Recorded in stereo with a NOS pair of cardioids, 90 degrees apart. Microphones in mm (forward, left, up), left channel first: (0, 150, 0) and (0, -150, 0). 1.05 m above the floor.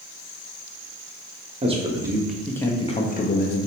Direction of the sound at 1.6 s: 20° right.